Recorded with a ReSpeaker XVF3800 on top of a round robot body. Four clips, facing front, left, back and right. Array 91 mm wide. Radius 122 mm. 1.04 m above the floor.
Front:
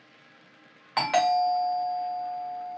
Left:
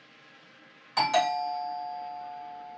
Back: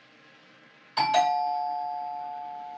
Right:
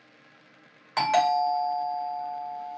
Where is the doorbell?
25° right, 1.9 m.